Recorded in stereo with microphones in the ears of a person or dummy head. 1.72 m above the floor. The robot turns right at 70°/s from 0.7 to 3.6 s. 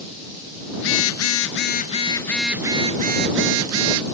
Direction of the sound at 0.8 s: 60° left.